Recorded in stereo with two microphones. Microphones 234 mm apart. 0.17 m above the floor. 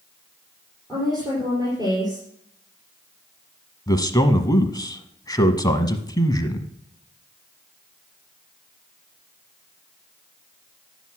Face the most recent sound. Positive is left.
turn(degrees=15)  # may be behind; listen again after turning